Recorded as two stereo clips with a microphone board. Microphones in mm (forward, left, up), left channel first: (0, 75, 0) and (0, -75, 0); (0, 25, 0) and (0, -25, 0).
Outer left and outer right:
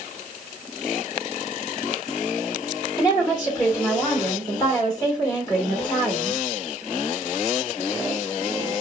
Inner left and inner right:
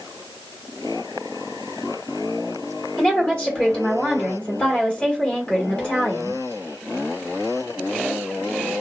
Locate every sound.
3.0 s a woman speaking: 25° left (ahead or behind), 1.4 m